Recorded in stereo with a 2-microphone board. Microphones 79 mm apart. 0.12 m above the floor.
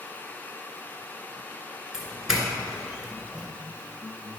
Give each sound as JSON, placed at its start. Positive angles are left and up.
{"t": 1.9, "sound": "a doorbell", "side_deg": -10, "distance_m": 1.7}